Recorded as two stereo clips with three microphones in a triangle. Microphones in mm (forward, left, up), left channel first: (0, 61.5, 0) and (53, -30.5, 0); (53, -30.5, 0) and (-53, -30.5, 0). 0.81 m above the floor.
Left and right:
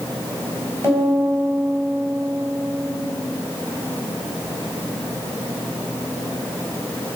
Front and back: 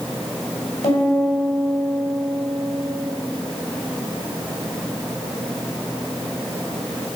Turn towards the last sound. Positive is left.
turn(degrees=5)